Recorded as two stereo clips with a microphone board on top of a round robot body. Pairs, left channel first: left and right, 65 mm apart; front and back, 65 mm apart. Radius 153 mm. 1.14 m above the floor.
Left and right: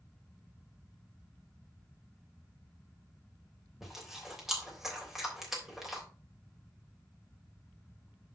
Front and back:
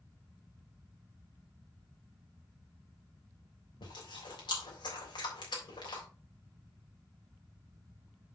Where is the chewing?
5° right, 3 m.